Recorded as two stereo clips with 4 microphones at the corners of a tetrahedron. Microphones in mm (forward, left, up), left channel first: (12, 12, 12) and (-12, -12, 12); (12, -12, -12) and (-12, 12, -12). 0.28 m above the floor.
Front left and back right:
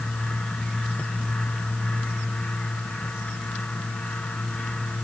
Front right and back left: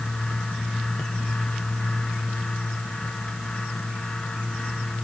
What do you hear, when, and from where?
Only background noise.